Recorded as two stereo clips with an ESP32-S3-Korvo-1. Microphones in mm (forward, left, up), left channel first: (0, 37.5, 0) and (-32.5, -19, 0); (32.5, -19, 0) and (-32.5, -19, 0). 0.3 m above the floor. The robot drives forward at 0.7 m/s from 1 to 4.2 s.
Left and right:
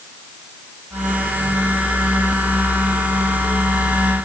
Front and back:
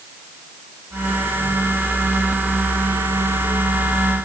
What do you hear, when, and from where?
Only background noise.